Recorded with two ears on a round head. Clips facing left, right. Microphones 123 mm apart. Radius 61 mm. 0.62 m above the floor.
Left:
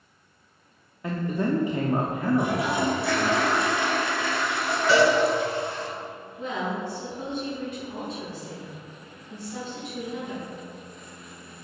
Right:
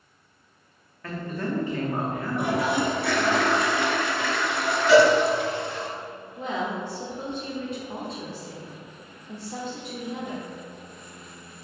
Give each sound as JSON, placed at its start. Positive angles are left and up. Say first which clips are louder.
{"t": 1.0, "sound": "a man speaking", "louder": "left 4 dB", "side_deg": 15, "distance_m": 0.7}
{"t": 2.4, "sound": "a toilet flushing", "louder": "right 1 dB", "side_deg": -55, "distance_m": 1.5}
{"t": 4.9, "sound": "a cowbell", "louder": "right 4 dB", "side_deg": 90, "distance_m": 2.5}
{"t": 6.4, "sound": "a woman speaking", "louder": "right 1 dB", "side_deg": -30, "distance_m": 1.7}